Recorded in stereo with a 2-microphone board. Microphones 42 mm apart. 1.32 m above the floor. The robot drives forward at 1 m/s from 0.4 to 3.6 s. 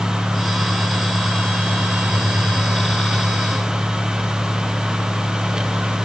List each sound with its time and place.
Only background noise.